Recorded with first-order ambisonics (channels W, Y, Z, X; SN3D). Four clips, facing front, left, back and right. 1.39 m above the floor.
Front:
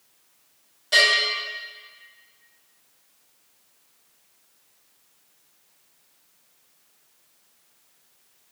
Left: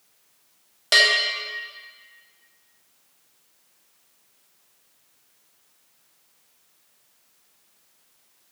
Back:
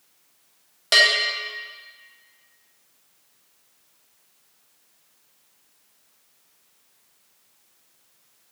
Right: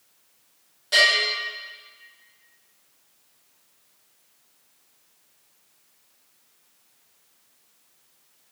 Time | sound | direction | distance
0.9 | a bell | 130° left | 1.0 m